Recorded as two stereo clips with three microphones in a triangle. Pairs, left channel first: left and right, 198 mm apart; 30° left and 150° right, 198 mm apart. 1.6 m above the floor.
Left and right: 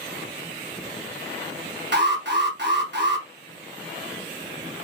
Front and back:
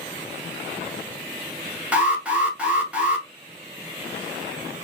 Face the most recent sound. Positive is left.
turn(degrees=-65)